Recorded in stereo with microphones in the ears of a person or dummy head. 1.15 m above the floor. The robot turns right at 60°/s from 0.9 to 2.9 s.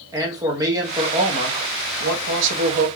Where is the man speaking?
165° right, 1.4 m; by 2.9 s 45° right, 1.4 m.